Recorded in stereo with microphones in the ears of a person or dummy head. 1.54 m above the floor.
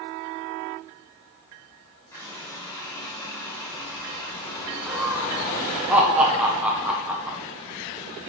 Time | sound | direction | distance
2.1 | a running tap | 15° left (ahead or behind) | 4.5 m
4.9 | laughter | 5° right (ahead or behind) | 1.0 m